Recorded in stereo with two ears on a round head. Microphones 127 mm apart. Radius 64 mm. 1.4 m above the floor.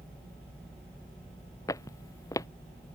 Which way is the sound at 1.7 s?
25° left (ahead or behind).